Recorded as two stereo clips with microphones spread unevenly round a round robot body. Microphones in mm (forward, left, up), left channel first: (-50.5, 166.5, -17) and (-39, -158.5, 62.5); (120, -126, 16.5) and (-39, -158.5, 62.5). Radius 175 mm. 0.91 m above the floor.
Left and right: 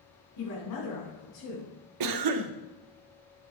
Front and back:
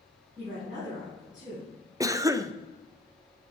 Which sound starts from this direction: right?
A cough, at 2.0 s.